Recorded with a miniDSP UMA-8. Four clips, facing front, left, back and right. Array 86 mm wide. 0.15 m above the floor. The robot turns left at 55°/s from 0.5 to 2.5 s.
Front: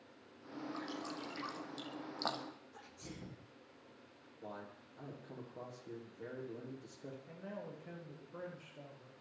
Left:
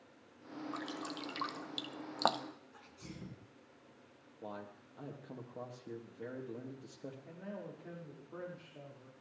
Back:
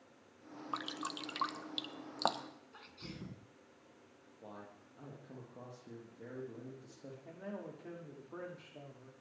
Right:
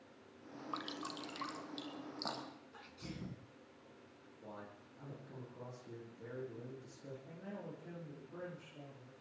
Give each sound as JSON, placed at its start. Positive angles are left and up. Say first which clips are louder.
{"t": 0.7, "sound": "dripping", "louder": "right 1 dB, back 5 dB", "azimuth_deg": -160, "distance_m": 0.9}
{"t": 2.7, "sound": "a sneeze", "louder": "right 2 dB, back 1 dB", "azimuth_deg": -165, "distance_m": 1.8}
{"t": 4.4, "sound": "a man speaking", "louder": "left 5 dB, front 3 dB", "azimuth_deg": 90, "distance_m": 4.0}
{"t": 7.2, "sound": "a man speaking", "louder": "left 1 dB, back 4 dB", "azimuth_deg": 155, "distance_m": 6.5}